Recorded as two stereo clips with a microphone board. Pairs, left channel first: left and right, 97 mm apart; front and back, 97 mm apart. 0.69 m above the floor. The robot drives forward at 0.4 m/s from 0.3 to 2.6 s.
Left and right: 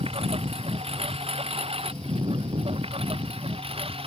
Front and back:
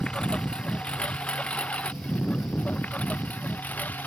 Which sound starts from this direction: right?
A lawn mower, at 0.0 s.